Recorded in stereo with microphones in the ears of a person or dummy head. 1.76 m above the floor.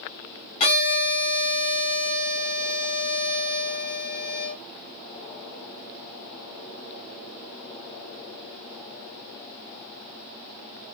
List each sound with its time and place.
0.6 s a violin: 35° left (ahead or behind), 1.1 m